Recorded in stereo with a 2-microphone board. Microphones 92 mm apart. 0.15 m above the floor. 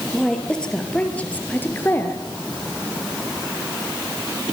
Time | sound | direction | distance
0.1 | a woman speaking | 5° left (ahead or behind) | 3.5 m